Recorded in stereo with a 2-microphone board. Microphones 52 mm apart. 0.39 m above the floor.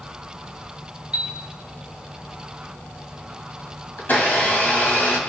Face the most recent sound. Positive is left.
turn(degrees=40)  # may be behind; listen again after turning